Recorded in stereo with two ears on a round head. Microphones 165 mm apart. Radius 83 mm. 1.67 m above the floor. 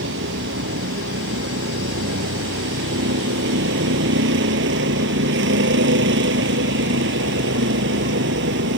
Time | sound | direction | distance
0.0 | a vehicle | 70° right (ahead or behind) | ?